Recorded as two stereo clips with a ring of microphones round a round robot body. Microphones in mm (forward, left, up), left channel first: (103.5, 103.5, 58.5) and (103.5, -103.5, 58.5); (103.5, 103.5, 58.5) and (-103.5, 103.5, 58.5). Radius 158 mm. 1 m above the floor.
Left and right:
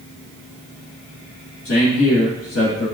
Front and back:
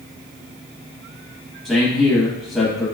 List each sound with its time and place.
1.6 s a man speaking: 85° left, 1.2 m